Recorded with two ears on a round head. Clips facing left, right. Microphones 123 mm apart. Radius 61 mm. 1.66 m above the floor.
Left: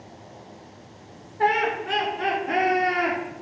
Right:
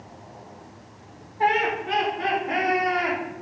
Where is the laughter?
65° left (ahead or behind), 3.5 m; by 3.2 s 50° left (ahead or behind), 5 m.